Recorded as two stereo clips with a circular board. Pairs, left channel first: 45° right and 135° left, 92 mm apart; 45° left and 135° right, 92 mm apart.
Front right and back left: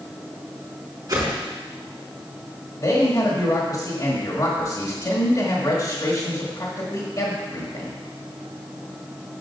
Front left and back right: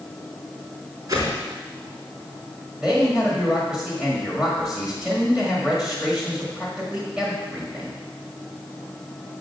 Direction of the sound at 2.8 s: 55° right.